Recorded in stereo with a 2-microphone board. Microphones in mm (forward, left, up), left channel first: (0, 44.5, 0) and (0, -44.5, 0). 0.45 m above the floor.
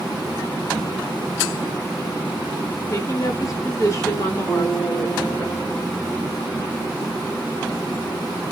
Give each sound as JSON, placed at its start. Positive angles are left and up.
{"t": 2.9, "sound": "a woman speaking", "side_deg": 40, "distance_m": 1.3}
{"t": 4.5, "sound": "a guitar", "side_deg": 20, "distance_m": 1.9}